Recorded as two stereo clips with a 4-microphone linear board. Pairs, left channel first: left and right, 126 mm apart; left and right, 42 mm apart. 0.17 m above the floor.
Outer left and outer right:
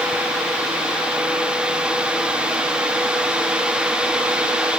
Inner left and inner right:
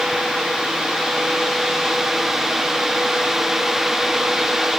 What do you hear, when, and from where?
Only background noise.